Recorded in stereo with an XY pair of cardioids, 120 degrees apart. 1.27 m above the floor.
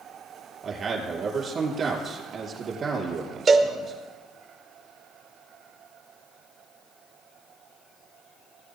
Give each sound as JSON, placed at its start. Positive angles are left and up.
{"t": 0.6, "sound": "a man speaking", "azimuth_deg": -45, "distance_m": 3.0}
{"t": 3.5, "sound": "a cowbell", "azimuth_deg": -35, "distance_m": 1.1}